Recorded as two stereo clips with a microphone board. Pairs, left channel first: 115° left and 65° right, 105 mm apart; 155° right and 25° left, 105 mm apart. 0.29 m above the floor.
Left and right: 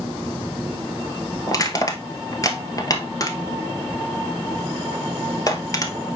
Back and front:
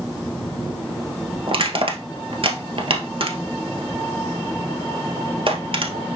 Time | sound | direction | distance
1.5 | crushing | 55° left | 1.2 m